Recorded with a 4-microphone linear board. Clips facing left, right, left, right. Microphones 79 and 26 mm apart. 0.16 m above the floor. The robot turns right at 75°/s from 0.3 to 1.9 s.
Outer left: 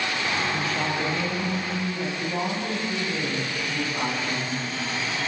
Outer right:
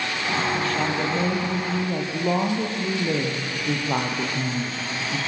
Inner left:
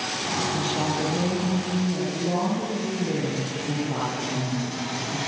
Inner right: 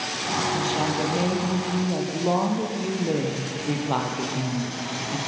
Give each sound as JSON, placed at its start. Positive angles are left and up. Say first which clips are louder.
{"t": 0.5, "sound": "a woman speaking", "louder": "outer right 2 dB, inner right 1 dB", "azimuth_deg": 160, "distance_m": 5.5}